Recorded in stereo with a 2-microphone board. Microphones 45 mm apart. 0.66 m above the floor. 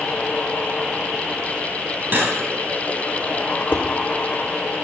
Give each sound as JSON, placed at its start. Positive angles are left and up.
{"t": 2.1, "sound": "cutlery clinking", "side_deg": -50, "distance_m": 3.5}
{"t": 3.7, "sound": "dishes clattering", "side_deg": 50, "distance_m": 1.4}